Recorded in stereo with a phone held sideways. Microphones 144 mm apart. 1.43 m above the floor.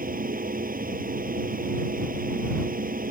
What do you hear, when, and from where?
0.0 s a fan: 75° right (ahead or behind)